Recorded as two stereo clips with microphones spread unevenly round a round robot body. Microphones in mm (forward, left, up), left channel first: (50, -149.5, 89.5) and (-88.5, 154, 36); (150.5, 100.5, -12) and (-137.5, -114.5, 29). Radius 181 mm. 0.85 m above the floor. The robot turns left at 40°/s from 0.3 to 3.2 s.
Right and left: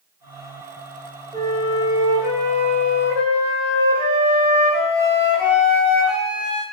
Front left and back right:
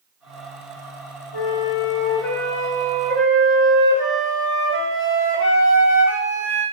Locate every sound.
1.3 s a flute: 10° left, 3 m; by 6.6 s 65° right, 3 m